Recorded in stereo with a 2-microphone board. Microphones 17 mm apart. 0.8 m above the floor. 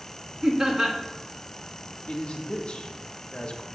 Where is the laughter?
40° right (ahead or behind), 1.5 m.